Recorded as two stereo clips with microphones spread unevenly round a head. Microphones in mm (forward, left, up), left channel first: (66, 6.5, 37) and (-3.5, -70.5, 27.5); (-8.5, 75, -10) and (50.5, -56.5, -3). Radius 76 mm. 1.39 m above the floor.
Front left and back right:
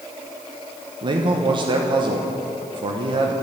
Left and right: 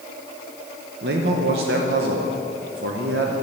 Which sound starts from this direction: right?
A man speaking, at 1.0 s.